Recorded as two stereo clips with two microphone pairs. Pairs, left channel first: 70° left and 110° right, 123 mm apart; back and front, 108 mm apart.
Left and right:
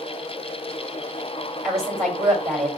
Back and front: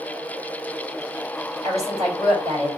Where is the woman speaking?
20° right, 2.5 m.